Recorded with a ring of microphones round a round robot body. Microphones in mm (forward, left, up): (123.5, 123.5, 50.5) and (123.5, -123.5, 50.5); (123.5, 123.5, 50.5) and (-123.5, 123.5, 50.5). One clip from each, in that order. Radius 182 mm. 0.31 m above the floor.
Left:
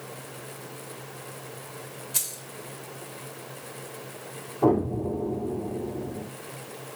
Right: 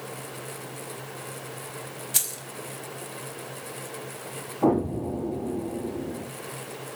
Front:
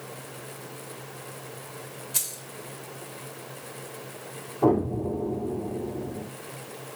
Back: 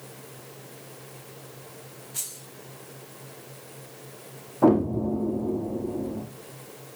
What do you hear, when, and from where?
2.1 s keys jangling: 50° right, 1.8 m
4.6 s an explosion: straight behind, 3 m